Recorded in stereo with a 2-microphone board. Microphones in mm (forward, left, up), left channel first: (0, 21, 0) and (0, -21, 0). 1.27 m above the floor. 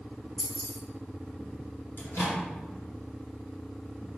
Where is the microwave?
65° left (ahead or behind), 1.1 m.